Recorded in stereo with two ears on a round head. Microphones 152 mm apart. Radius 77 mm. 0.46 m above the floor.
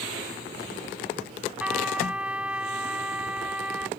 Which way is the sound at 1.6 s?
5° right (ahead or behind).